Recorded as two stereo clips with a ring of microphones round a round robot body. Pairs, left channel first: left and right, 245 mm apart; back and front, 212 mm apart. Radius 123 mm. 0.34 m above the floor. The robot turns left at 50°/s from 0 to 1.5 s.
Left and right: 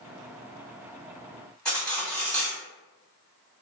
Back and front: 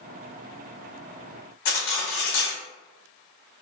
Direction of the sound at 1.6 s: 175° left.